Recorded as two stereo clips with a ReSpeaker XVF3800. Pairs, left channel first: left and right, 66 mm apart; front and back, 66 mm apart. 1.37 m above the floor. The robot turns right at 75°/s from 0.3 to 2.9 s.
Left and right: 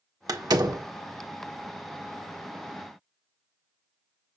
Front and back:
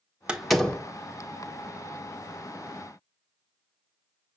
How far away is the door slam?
About 1.4 m.